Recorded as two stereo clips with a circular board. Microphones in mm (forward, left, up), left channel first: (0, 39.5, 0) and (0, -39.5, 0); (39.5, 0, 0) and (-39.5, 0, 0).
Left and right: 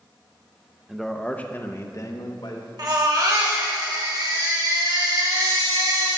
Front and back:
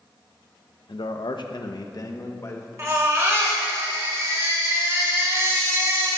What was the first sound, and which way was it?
A man speaking, 5° right.